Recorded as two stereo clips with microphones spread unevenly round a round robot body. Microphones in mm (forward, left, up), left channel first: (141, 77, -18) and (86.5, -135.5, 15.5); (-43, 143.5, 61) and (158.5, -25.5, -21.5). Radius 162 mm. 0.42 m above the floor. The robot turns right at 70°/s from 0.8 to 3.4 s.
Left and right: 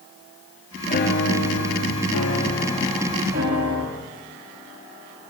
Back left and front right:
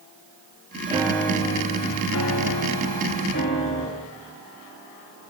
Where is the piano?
25° left, 4.5 m; by 3.9 s 155° right, 4.5 m.